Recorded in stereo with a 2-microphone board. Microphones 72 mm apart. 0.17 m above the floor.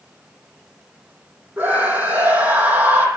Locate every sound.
1.6 s a scream: 25° right (ahead or behind), 7 m